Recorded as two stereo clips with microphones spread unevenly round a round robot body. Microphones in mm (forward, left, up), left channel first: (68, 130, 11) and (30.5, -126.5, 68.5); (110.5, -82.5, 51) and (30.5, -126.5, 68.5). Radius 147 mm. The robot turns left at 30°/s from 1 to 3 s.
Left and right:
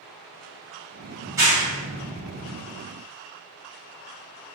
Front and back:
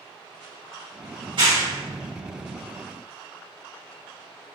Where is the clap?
Straight behind, 1.2 m; by 2.5 s 140° left, 1.2 m.